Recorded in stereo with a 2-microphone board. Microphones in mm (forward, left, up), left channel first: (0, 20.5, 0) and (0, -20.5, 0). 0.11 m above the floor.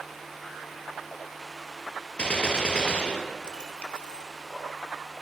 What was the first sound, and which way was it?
A gunshot, 25° left (ahead or behind).